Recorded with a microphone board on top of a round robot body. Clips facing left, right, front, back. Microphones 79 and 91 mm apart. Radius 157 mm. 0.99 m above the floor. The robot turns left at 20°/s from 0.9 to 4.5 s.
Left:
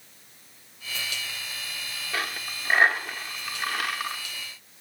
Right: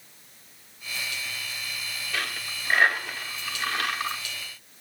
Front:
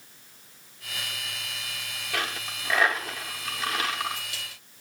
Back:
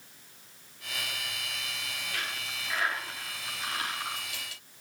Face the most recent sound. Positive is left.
turn(degrees=-5)